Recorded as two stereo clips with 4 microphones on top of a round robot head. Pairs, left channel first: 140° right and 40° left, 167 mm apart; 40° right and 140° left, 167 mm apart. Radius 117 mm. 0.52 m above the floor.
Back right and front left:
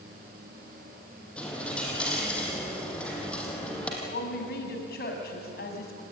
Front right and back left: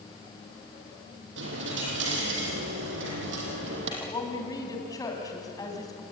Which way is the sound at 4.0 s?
110° right.